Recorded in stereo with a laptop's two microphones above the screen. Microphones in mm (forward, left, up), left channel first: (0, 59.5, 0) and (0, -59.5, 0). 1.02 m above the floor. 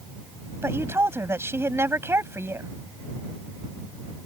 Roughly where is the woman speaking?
Right.